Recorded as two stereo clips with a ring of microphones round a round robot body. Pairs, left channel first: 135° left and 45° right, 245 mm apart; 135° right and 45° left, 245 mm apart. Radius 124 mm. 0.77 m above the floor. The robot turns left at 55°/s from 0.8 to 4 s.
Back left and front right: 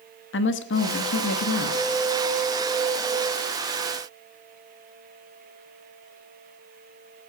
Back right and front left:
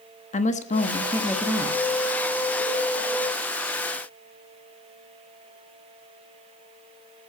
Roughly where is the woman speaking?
Behind.